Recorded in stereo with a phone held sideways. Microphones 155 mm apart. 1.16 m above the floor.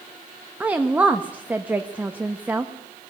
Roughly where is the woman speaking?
Centre.